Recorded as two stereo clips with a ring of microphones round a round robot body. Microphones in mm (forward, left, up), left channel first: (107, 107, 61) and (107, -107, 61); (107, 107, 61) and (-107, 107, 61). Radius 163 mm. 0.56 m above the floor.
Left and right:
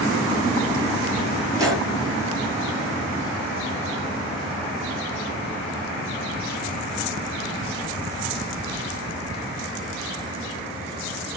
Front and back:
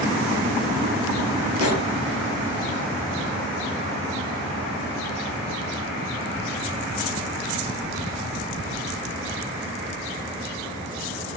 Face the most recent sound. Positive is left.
turn(degrees=-15)